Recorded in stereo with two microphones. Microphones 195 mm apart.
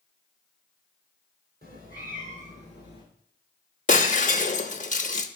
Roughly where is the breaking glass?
Left.